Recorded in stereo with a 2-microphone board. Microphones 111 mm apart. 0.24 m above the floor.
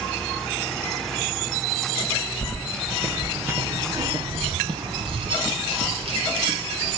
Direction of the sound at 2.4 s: 20° left (ahead or behind).